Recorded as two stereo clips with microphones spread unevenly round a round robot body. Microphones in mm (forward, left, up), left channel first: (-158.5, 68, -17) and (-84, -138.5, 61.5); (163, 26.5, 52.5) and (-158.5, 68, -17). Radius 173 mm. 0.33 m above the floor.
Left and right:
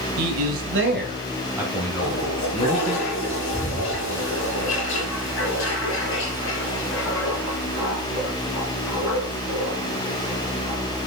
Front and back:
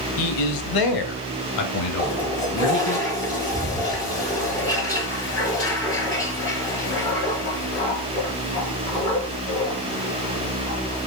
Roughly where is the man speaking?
Ahead right.